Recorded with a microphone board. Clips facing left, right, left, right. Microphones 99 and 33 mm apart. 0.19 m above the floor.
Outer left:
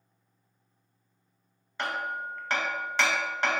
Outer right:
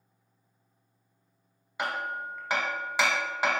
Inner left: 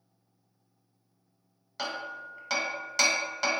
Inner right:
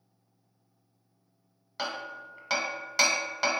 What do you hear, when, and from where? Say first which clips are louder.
1.8 s hammering: even, even; 10° right (ahead or behind), 0.7 m